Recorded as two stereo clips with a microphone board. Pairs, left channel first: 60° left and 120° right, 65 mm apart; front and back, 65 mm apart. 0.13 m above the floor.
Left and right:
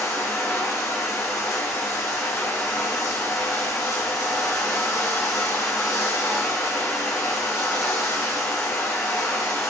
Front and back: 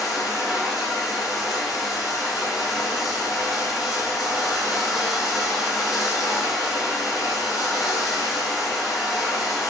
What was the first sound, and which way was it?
Running water, 90° left.